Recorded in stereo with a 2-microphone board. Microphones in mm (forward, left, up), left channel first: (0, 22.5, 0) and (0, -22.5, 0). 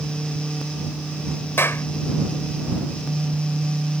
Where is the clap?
65° left (ahead or behind).